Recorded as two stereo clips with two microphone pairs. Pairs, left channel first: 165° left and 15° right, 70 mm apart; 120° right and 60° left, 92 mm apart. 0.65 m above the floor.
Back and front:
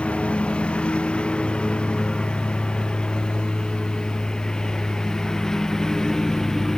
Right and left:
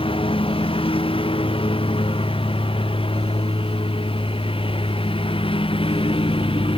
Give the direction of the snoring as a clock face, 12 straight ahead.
No snoring in this recording.